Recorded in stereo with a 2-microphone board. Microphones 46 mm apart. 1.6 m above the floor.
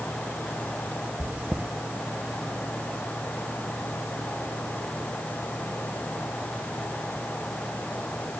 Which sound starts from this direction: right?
Chewing, at 1.2 s.